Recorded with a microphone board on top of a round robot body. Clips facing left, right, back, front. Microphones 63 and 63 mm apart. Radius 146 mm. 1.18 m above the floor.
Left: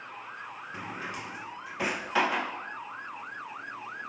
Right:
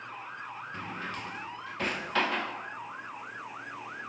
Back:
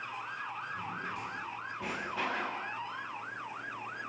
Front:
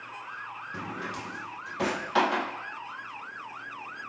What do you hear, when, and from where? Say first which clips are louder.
0.7 s a drawer: left 1 dB, front 3 dB; 10° left, 1.9 m